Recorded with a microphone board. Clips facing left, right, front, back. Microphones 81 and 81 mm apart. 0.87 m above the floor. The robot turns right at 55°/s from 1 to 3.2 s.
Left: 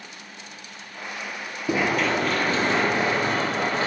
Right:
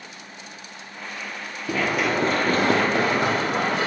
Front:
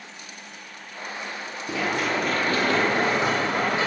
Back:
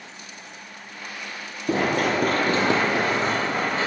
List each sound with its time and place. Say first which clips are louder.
1.7 s running footsteps: left 1 dB, back 4 dB; 150° left, 1.1 m; by 3.9 s 70° right, 3 m